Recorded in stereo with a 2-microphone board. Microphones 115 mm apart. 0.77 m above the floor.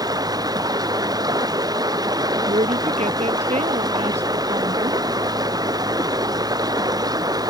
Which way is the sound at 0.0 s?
35° right (ahead or behind).